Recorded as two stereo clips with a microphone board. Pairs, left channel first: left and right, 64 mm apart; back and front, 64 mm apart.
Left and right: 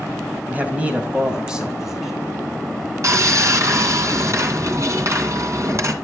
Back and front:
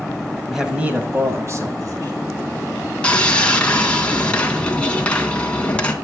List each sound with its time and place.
0.5 s a man speaking: 85° right, 1.6 m; by 2.1 s 5° right, 2.5 m
3.0 s sawing: 110° right, 1.8 m